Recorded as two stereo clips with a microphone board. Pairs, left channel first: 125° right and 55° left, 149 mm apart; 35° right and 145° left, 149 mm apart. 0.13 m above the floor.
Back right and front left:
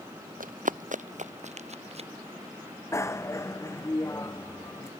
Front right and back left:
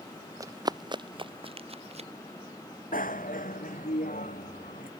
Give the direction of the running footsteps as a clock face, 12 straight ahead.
9 o'clock.